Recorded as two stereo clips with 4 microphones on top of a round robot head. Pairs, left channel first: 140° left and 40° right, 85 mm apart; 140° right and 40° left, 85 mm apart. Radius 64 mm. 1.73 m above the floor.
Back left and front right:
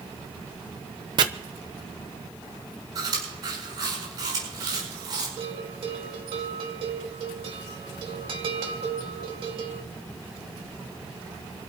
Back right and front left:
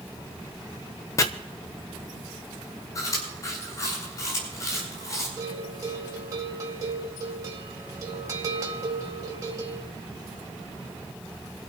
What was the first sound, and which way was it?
Chopping, 80° right.